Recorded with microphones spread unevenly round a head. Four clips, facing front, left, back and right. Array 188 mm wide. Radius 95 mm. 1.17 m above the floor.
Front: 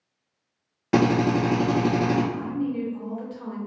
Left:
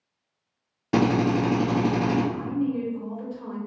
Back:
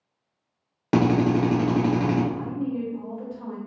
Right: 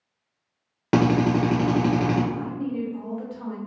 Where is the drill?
95° right, 1.2 m.